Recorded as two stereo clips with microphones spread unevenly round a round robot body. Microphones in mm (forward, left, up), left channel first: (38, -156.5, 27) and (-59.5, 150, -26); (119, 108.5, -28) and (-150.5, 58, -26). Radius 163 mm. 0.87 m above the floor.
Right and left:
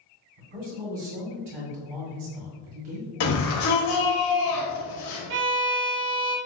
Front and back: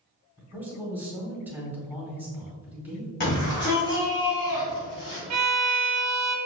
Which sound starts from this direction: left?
A man speaking, at 0.4 s.